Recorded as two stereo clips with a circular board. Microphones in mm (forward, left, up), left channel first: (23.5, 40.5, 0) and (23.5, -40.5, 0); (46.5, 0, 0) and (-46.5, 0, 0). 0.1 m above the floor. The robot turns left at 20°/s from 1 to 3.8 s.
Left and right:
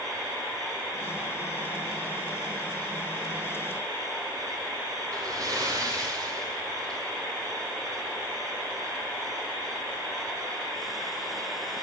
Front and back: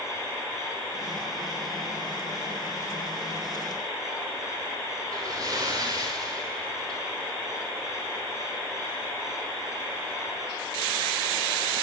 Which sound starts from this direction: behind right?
A splash, at 5.1 s.